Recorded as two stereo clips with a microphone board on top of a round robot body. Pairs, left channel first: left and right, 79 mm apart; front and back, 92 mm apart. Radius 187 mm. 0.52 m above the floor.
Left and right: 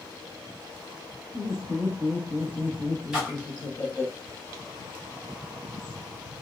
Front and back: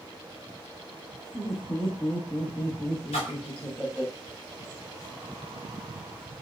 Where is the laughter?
55° right, 1.4 m; by 4.1 s 115° left, 1.1 m.